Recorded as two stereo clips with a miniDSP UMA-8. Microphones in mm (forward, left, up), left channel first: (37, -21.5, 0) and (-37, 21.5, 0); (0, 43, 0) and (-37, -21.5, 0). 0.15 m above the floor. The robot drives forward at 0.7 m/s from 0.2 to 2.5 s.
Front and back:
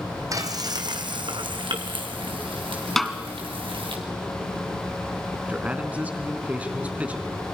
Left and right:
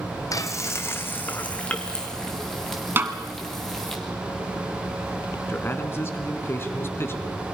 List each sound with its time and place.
0.3 s frying: 105° left, 1.3 m; by 4.0 s 145° left, 2 m
3.0 s a snare drum: 115° right, 1.5 m
5.5 s a man speaking: 90° left, 2.0 m